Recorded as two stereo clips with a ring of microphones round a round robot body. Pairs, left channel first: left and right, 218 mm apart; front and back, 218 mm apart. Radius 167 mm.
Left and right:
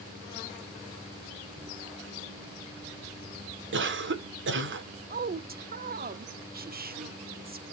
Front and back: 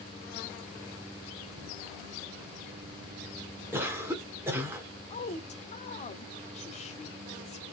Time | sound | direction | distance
3.7 | a cough | 100° right | 2 m
5.1 | a woman speaking | 55° right | 1.1 m